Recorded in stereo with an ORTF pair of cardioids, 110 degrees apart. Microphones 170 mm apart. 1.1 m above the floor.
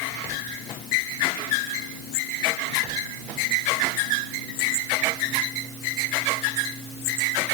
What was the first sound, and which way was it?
Only background noise.